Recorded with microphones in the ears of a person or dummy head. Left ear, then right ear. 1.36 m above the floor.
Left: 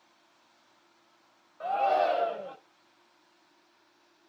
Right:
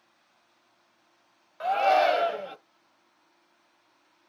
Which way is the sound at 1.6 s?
60° right (ahead or behind).